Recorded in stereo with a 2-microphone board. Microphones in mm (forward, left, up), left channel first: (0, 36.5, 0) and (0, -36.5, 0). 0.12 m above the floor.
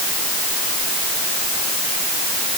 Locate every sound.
Only background noise.